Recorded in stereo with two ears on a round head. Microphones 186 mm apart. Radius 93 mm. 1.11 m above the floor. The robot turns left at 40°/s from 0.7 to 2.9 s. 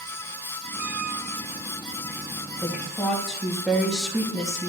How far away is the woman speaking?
About 1.4 m.